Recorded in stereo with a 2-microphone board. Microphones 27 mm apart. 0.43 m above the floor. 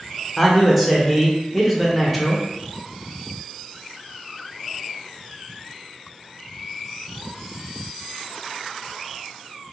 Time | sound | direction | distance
0.4 | a man speaking | centre (ahead or behind) | 0.8 m